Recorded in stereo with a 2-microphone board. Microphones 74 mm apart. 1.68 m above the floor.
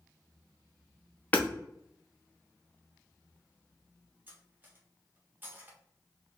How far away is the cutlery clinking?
About 1.1 m.